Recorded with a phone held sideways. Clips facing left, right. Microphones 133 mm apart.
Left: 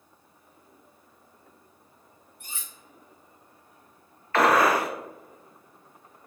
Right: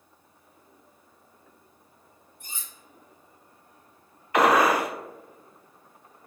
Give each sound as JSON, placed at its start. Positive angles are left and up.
{"t": 2.4, "sound": "cutlery clinking", "side_deg": 70, "distance_m": 1.1}
{"t": 4.3, "sound": "a gunshot", "side_deg": -15, "distance_m": 0.5}